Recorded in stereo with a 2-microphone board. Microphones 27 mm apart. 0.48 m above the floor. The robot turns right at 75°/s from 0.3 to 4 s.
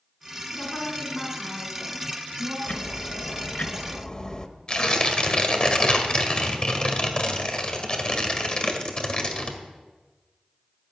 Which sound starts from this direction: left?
Tearing paper, at 4.7 s.